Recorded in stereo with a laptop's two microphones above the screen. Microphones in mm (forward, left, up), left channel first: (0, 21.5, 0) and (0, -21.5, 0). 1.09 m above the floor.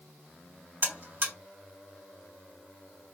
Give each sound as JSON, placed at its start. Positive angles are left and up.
{"t": 0.8, "sound": "a buzzer", "side_deg": -65, "distance_m": 1.3}